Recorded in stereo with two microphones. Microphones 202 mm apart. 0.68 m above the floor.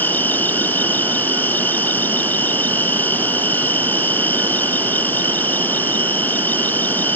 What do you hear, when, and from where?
0.0 s an insect: 10° left (ahead or behind)